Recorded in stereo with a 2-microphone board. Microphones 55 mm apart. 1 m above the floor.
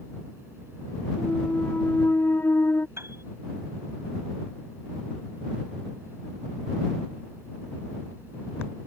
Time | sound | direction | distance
1.2 | a clunk | 45° left (ahead or behind) | ?
3.0 | a piano | 50° right (ahead or behind) | ?